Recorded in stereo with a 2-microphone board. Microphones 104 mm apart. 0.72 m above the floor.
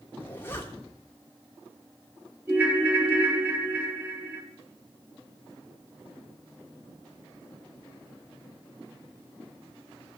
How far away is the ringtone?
About 2 m.